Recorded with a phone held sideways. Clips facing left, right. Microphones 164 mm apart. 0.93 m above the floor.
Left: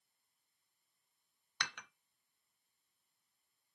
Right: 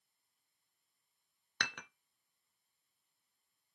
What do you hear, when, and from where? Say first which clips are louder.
1.6 s dishes clattering: right 3 dB; 60° right (ahead or behind), 0.6 m